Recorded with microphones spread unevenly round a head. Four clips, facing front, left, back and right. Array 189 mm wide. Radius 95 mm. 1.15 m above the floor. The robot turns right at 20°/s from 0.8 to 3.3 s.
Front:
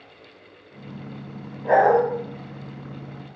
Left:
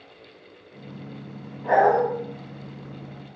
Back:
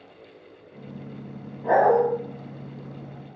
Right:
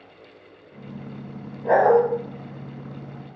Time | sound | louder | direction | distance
1.6 | a dog barking | right 2 dB, front 2 dB | 160° left | 1.8 m